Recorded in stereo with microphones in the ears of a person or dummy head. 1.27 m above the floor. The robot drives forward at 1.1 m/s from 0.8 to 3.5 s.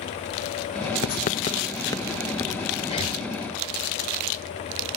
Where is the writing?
55° left (ahead or behind); by 2.7 s 15° left (ahead or behind).